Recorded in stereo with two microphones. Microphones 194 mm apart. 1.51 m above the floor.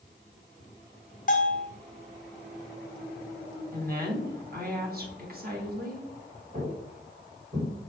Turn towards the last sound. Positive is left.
turn(degrees=-50)  # may be behind; listen again after turning